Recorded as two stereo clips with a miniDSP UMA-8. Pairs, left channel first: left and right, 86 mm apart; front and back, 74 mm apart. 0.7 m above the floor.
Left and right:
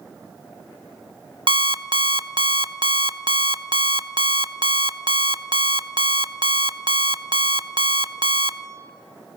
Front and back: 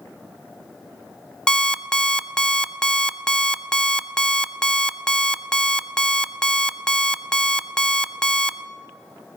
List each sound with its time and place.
1.5 s an alarm clock: 80° right, 0.6 m